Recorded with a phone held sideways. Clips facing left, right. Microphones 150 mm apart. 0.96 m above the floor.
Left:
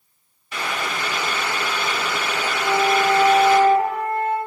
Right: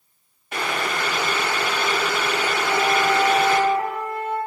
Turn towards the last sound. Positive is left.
turn(degrees=35)  # may be behind; listen again after turning